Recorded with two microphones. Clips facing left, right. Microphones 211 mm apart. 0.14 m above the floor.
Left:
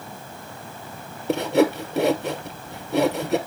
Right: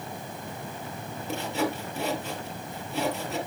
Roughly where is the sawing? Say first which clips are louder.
Left 11 dB; left.